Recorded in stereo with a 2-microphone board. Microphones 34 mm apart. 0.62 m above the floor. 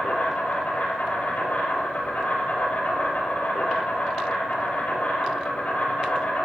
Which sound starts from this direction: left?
An insect, at 0.0 s.